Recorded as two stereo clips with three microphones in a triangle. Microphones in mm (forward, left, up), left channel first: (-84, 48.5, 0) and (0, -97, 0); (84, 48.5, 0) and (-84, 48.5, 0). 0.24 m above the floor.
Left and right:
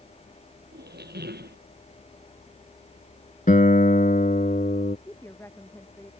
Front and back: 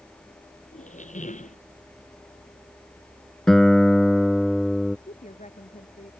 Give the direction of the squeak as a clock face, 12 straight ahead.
1 o'clock.